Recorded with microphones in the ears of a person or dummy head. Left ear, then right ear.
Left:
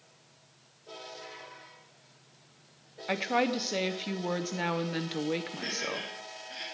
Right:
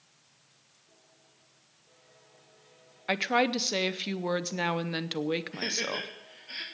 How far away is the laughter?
About 2.0 m.